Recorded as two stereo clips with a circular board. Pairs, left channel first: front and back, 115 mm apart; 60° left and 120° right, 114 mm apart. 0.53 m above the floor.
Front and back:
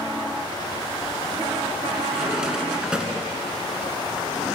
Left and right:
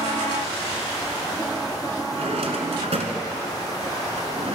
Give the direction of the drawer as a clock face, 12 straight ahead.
3 o'clock.